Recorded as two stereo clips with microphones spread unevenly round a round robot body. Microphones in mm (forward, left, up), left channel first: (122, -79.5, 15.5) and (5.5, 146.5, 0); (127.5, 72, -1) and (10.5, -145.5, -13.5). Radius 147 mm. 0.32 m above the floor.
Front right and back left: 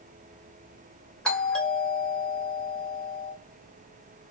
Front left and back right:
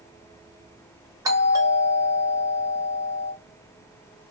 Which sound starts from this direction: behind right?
A doorbell, at 1.2 s.